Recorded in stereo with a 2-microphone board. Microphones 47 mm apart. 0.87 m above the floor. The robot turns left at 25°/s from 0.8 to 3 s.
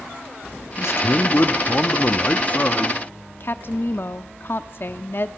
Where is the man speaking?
80° left, 1.4 m; by 3.0 s 25° left, 1.4 m.